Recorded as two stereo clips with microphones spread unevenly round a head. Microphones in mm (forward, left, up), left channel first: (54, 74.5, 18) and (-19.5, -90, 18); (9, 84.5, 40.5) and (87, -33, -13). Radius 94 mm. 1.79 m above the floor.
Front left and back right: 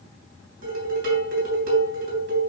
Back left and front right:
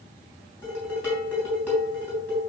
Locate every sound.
0.6 s dishes clattering: 145° right, 3 m